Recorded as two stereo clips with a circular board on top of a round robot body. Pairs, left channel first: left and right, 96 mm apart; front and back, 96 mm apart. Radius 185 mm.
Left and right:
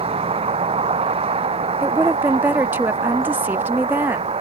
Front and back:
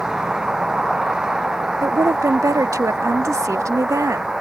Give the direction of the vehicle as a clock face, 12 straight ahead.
3 o'clock.